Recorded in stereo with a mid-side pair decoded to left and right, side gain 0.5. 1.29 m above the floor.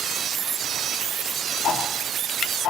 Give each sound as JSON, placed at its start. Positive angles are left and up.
{"t": 1.6, "sound": "ticking", "azimuth_deg": 60, "distance_m": 3.0}